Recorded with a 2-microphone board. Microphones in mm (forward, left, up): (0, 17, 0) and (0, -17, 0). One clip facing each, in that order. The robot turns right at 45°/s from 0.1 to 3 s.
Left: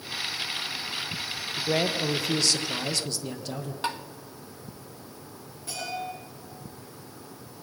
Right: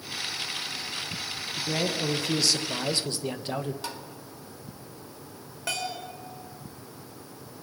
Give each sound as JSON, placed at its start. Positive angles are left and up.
{"t": 1.6, "sound": "a man speaking", "azimuth_deg": 145, "distance_m": 1.5}
{"t": 3.8, "sound": "tapping", "side_deg": 35, "distance_m": 1.1}
{"t": 5.7, "sound": "a bell", "side_deg": -80, "distance_m": 6.0}